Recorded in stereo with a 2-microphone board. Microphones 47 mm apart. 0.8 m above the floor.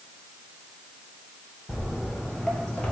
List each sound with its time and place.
1.7 s footsteps: 5° right (ahead or behind), 0.9 m; by 2.9 s 20° left (ahead or behind), 0.9 m